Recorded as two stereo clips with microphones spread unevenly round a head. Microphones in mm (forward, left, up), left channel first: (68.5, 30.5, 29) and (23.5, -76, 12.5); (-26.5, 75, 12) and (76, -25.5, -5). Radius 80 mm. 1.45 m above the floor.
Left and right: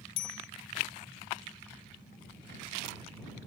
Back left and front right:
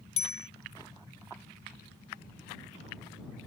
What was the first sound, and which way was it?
A bicycle bell, 95° left.